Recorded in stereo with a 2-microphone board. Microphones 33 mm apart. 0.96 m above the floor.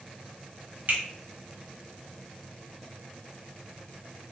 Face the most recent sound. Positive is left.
turn(degrees=-65)  # may be behind; listen again after turning